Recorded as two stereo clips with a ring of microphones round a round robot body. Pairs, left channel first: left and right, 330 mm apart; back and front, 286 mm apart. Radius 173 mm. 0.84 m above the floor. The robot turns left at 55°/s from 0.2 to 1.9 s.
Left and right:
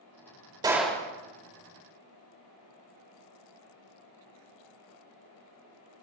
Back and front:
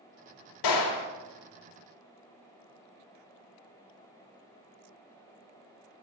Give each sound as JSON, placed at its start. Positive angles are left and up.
{"t": 0.6, "sound": "a gunshot", "azimuth_deg": -170, "distance_m": 1.5}